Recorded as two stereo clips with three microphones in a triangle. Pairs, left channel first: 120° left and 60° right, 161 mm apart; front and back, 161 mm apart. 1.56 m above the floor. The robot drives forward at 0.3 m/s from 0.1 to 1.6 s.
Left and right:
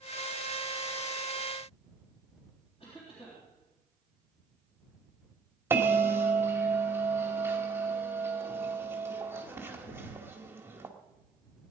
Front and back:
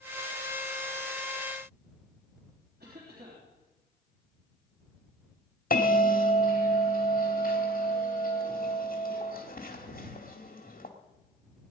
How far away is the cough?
About 3.5 m.